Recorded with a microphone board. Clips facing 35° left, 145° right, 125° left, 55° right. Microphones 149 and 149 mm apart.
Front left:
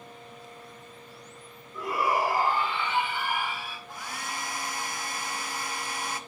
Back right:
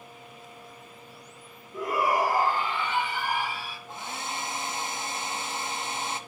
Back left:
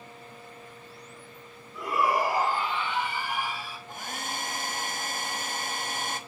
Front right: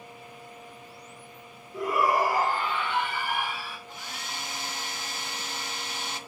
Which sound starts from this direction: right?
A shout, at 1.7 s.